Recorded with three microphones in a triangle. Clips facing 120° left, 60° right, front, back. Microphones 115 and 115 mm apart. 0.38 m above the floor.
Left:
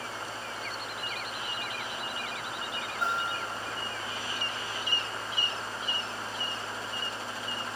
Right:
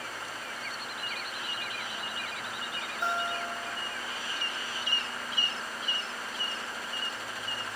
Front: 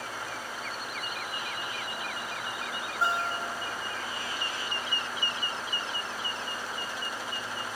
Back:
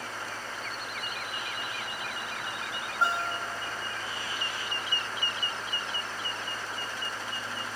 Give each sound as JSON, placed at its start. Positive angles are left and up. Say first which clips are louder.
{"t": 3.0, "sound": "a guitar", "louder": "right 1 dB, even", "azimuth_deg": 115, "distance_m": 1.5}